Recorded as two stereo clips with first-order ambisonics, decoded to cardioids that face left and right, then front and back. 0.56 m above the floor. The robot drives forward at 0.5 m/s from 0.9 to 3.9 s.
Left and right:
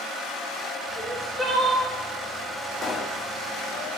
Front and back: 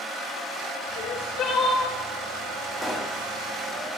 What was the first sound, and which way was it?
Crying, 5° right.